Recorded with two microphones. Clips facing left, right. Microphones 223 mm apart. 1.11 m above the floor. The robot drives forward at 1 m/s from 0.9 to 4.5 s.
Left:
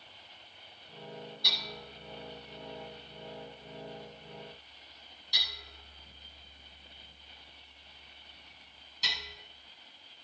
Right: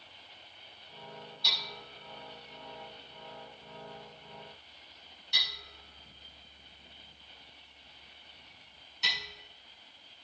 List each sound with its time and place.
1.4 s hammering: 55° left (ahead or behind), 5.5 m; by 9.3 s 35° left (ahead or behind), 7.5 m